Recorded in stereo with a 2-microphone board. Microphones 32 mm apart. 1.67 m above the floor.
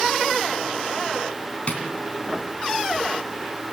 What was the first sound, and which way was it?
Tapping, 40° left (ahead or behind).